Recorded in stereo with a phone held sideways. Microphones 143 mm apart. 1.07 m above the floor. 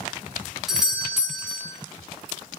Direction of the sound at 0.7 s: 5° right (ahead or behind).